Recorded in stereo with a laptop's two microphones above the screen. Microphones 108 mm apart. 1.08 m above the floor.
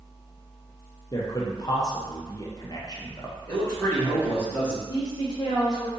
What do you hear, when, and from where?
1.1 s a man speaking: 35° left (ahead or behind), 0.5 m
3.5 s a man speaking: 25° left (ahead or behind), 1.4 m
4.9 s a woman speaking: 40° left (ahead or behind), 0.8 m